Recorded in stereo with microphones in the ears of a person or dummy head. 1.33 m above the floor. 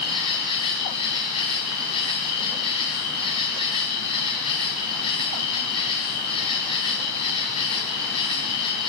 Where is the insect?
30° left (ahead or behind), 7 m.